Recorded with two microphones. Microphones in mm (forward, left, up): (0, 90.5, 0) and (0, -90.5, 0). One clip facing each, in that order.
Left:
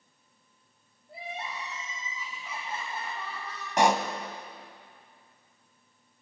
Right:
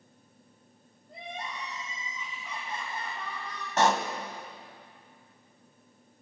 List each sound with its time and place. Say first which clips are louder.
1.1 s crying: left 1 dB; 5° left (ahead or behind), 8 m
3.8 s a pop: left 1 dB; 15° left (ahead or behind), 1.4 m